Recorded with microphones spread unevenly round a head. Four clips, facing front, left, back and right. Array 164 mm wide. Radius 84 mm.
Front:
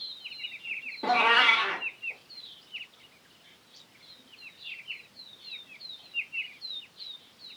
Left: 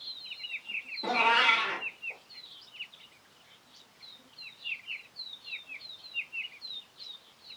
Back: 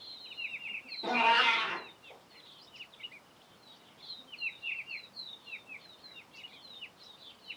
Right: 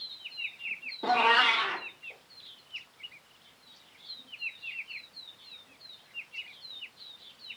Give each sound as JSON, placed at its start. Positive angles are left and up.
{"t": 1.0, "sound": "a cat meowing", "azimuth_deg": -40, "distance_m": 0.9}